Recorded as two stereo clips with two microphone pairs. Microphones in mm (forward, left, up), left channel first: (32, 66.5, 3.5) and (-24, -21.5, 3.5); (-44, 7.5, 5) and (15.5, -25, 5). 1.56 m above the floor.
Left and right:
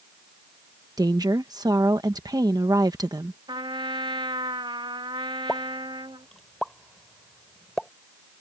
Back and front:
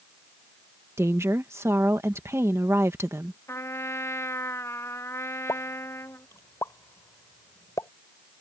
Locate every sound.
1.0 s a woman speaking: 75° right
3.5 s a trumpet: 160° right
5.5 s a pop: 145° left